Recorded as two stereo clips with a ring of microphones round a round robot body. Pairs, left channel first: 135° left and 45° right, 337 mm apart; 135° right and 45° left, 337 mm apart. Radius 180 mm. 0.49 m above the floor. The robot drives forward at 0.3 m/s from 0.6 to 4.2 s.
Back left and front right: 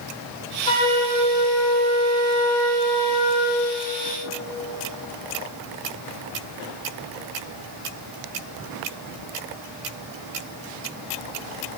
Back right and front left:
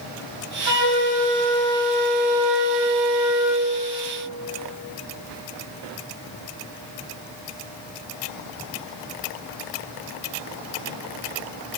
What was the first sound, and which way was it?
A flute, 60° left.